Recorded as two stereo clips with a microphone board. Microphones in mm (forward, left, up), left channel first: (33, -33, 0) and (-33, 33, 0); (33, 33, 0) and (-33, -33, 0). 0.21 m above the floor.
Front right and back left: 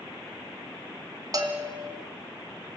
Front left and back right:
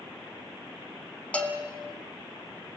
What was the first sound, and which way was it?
A bell, 115° left.